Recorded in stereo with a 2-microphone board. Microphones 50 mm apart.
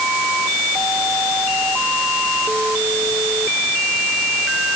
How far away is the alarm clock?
I don't hear an alarm clock.